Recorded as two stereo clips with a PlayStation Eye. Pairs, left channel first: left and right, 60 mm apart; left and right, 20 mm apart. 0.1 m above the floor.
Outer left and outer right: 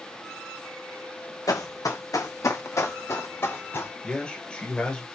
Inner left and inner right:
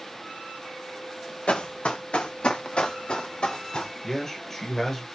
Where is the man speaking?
20° left (ahead or behind), 1.7 m.